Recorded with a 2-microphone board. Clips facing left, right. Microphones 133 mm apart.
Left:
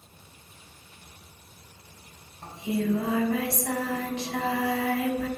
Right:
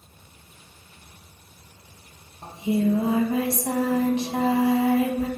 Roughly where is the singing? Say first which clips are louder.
Right 5 dB; right.